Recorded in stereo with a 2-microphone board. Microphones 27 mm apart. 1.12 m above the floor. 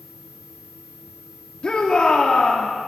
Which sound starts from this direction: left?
A shout, at 1.6 s.